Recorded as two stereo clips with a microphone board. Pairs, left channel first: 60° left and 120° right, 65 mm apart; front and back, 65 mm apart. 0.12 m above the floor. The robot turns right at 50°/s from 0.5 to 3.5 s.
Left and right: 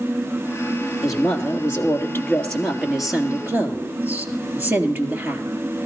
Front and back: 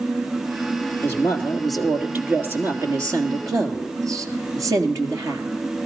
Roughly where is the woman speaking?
Ahead left.